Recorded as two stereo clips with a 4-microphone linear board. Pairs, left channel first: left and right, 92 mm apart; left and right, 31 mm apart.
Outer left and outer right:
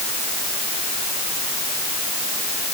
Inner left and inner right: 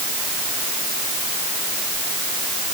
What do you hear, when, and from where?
Only background noise.